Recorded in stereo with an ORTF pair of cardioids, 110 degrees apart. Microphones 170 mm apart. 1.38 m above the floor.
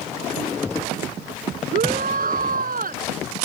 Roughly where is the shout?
Ahead right.